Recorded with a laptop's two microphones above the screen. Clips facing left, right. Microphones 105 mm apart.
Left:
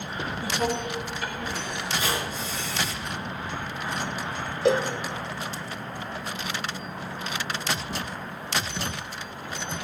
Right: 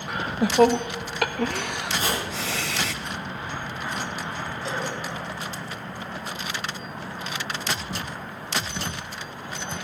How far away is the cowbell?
About 0.7 m.